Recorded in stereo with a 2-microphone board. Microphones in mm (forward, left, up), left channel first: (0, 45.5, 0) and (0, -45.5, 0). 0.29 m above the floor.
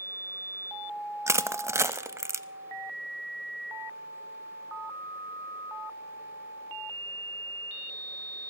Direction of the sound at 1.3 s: 30° right (ahead or behind).